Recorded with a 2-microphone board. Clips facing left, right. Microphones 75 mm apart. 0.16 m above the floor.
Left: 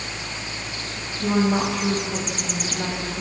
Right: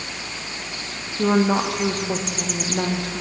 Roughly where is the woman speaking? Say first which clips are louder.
Right 2 dB; right.